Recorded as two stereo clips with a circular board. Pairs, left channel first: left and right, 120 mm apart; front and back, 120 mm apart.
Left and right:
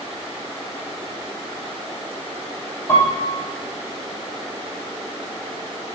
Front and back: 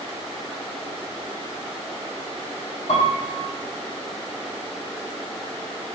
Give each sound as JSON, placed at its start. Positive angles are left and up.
{"t": 2.9, "sound": "a piano", "azimuth_deg": 25, "distance_m": 3.0}